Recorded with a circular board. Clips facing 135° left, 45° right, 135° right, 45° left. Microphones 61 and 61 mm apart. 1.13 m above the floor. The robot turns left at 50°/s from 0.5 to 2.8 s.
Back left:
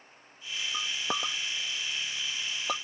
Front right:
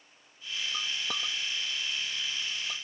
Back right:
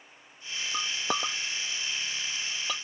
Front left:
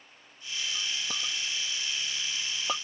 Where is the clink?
150° right; by 2.8 s 110° left.